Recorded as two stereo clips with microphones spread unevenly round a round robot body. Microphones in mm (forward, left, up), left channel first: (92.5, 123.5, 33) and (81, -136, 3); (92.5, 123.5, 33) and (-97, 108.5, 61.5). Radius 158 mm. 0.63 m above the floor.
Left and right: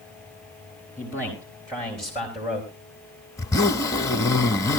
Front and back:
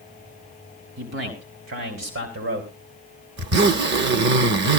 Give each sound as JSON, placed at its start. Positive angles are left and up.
{"t": 1.0, "sound": "a man speaking", "azimuth_deg": -175, "distance_m": 3.0}
{"t": 3.4, "sound": "a zipper", "azimuth_deg": 165, "distance_m": 0.7}